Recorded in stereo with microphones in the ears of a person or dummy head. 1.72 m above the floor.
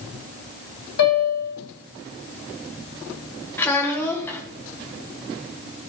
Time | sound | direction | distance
1.0 | a piano | 70° left (ahead or behind) | 3 m
3.6 | a child speaking | 10° left (ahead or behind) | 1.0 m